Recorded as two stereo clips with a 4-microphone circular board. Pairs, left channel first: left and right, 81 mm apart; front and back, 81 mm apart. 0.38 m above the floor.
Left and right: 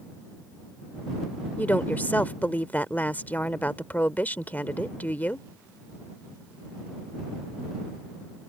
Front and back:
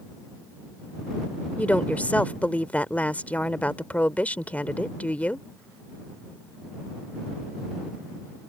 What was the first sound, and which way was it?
A woman speaking, 50° left.